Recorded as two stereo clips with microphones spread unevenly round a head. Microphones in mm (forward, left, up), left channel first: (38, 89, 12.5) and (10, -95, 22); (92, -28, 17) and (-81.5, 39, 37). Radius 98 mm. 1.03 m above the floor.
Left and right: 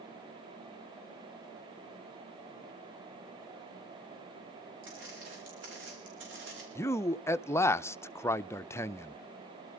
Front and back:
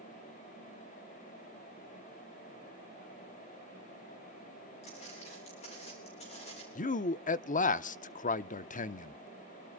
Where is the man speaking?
10° left, 0.6 m.